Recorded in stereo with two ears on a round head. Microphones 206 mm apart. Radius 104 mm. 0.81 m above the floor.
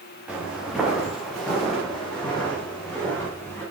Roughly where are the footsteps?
Centre.